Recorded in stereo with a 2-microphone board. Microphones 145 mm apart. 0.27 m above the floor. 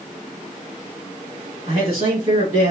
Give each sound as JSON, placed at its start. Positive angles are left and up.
{"t": 1.6, "sound": "a man speaking", "side_deg": -55, "distance_m": 2.0}